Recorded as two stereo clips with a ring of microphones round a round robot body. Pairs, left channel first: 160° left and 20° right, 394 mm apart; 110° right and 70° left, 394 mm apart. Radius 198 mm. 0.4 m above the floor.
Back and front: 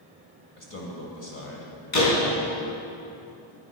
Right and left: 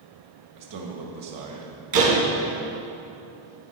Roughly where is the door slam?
Left.